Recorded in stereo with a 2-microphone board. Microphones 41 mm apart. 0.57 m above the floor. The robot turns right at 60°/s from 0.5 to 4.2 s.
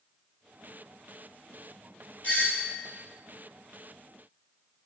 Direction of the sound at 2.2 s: 65° left.